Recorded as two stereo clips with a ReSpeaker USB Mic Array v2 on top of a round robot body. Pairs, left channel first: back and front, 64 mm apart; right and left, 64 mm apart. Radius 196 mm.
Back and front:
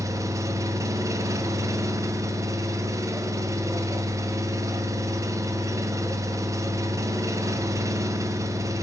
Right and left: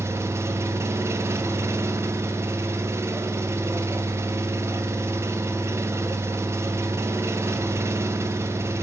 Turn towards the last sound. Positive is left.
turn(degrees=40)